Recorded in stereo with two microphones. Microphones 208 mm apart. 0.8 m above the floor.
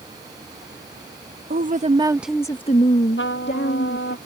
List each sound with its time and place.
1.5 s a woman speaking: 45° right (ahead or behind); by 4.2 s 70° left (ahead or behind)
3.2 s a trumpet: 65° left (ahead or behind)